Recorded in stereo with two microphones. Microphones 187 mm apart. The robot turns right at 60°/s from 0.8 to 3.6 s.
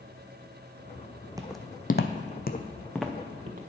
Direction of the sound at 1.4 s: 20° right (ahead or behind).